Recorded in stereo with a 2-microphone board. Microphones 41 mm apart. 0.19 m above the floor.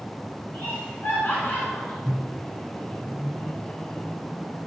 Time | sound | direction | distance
0.5 | laughter | 60° left (ahead or behind) | 2.5 m
2.0 | a microwave | 25° left (ahead or behind) | 0.8 m